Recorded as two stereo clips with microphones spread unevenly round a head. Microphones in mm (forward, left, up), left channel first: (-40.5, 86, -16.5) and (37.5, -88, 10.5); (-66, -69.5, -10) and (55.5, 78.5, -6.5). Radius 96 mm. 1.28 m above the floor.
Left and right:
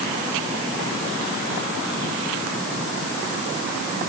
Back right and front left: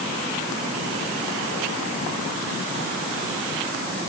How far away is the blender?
I don't hear a blender.